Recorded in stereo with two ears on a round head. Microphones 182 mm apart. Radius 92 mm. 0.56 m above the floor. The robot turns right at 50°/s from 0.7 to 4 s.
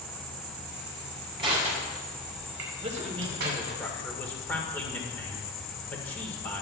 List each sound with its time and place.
0.0 s an insect: 100° right, 3 m; by 6.6 s 65° left, 3 m
1.4 s crushing: 25° right (ahead or behind), 5 m; by 3.8 s 35° right (ahead or behind), 5 m
2.8 s a man speaking: 50° right, 2 m; by 6.6 s 10° left, 2 m